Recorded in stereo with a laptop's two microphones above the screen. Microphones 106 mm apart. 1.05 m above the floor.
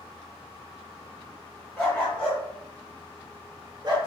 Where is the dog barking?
15° left (ahead or behind), 1.6 m; by 4.0 s 40° right (ahead or behind), 0.9 m.